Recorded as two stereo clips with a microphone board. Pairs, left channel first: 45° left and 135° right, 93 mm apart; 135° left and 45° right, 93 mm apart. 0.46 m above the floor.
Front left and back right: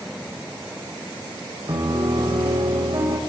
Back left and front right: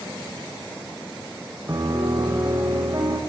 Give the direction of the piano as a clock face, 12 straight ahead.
3 o'clock.